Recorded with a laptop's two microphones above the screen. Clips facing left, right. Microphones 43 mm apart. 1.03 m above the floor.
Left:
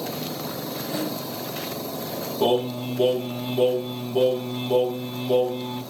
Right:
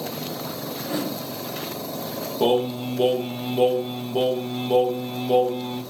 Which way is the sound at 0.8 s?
55° right (ahead or behind).